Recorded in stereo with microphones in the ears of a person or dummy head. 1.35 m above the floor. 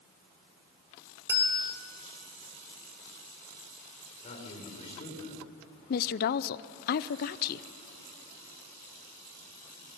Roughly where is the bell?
Centre.